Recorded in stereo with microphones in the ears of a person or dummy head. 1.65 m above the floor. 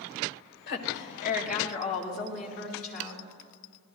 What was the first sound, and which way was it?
A woman speaking, 55° left (ahead or behind).